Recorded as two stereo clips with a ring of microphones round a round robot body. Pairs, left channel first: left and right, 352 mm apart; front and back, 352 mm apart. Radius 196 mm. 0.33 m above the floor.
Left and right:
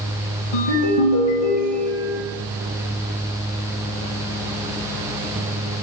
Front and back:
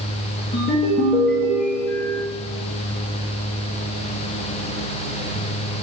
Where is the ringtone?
75° left, 2 m.